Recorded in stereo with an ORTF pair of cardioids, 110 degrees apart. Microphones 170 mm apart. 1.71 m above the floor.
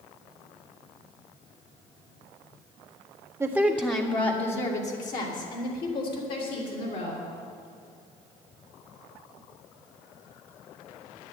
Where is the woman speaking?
15° right, 1.2 m; by 7.2 s 70° left, 5.5 m.